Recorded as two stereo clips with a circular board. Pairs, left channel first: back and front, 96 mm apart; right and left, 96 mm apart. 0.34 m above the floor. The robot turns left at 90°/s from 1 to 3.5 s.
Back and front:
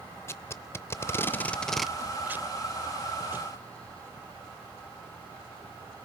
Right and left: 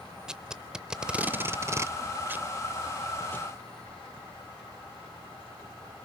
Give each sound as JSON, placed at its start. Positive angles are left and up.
{"t": 0.3, "sound": "tape being pulled", "azimuth_deg": 165, "distance_m": 0.5}